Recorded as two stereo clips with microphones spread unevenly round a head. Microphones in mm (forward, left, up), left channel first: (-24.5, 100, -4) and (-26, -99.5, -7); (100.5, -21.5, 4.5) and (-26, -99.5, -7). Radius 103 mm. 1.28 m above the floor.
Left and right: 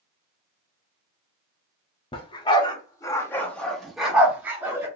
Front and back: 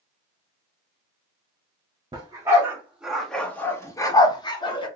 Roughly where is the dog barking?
Behind left.